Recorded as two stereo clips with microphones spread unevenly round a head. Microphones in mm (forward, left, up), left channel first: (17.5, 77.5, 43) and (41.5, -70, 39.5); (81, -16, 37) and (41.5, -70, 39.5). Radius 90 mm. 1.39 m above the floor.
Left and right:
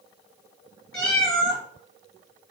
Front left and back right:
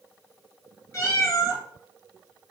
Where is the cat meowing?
20° left, 1.9 m.